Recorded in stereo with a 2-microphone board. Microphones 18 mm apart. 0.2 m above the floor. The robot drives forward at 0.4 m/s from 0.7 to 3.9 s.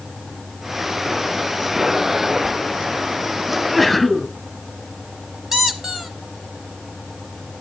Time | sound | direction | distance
3.5 | a sneeze | centre (ahead or behind) | 1.5 m
5.5 | a squeak | 20° right (ahead or behind) | 1.0 m